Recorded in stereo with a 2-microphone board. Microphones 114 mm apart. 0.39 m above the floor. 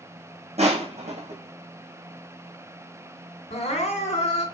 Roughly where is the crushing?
Right.